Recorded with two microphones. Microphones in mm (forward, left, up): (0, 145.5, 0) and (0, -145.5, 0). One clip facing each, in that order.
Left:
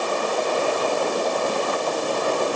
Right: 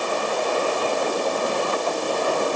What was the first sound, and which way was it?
Only background noise.